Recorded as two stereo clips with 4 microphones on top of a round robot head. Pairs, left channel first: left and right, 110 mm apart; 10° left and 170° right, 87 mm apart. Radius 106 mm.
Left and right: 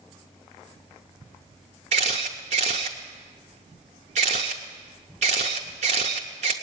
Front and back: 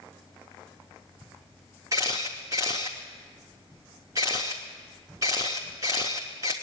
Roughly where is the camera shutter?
Right.